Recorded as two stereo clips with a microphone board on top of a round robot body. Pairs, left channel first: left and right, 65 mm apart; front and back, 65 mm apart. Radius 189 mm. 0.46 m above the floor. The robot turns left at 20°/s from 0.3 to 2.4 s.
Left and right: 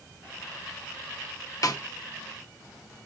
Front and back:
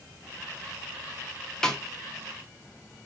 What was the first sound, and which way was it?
A snare drum, 80° left.